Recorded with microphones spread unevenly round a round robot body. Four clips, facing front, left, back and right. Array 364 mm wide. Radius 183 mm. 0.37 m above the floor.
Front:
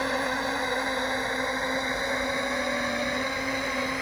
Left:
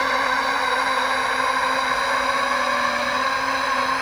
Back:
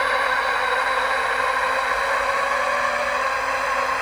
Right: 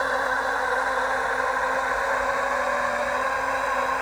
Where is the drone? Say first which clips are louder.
Left 3 dB, back 7 dB; 25° left.